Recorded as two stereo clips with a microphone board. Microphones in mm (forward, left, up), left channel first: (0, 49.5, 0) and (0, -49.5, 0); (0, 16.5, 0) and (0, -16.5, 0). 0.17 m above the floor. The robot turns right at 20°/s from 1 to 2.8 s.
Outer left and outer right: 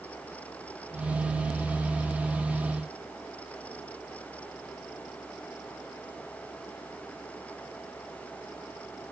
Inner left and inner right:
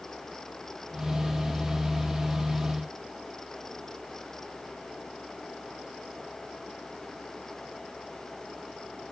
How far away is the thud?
No thud in this recording.